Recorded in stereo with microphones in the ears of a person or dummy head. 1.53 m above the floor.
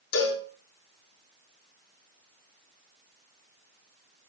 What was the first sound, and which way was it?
A cowbell, 80° left.